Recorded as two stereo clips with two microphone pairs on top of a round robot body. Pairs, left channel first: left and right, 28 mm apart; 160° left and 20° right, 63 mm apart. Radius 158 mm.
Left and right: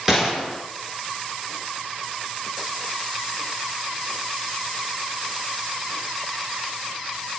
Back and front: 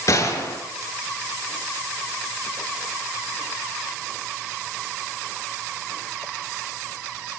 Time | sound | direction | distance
0.1 | a gunshot | 170° right | 6.5 m